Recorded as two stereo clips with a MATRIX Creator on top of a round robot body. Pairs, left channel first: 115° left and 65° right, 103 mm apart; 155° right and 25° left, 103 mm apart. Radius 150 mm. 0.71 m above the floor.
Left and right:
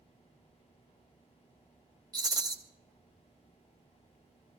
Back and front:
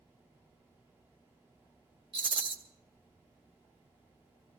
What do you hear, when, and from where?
2.1 s a rattle: 15° right, 1.7 m